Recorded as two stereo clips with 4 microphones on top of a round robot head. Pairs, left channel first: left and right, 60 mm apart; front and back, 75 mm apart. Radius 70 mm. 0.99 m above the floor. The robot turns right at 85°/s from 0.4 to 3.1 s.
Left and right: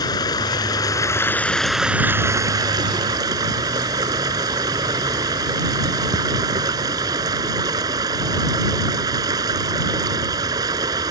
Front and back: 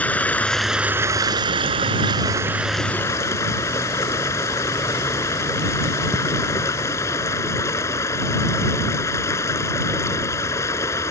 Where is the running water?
70° left; by 11.1 s 60° right.